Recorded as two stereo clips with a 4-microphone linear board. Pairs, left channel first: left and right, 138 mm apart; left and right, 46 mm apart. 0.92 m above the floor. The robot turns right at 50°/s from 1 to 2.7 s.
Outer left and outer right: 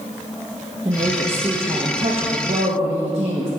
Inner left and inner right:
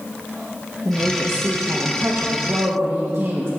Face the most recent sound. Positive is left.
turn(degrees=-65)